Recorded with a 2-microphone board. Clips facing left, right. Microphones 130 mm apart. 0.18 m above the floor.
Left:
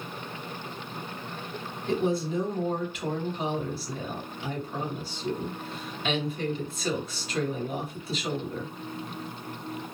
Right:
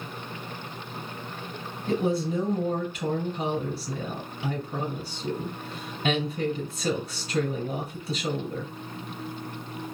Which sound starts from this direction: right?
A woman speaking, at 1.9 s.